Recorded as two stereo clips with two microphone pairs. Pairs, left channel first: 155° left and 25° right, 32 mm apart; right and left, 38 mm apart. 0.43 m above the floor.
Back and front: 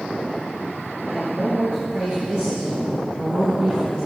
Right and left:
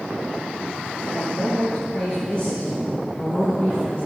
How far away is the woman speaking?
About 4 m.